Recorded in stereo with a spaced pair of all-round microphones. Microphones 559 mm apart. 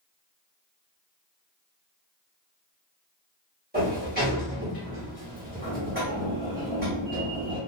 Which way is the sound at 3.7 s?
15° right (ahead or behind).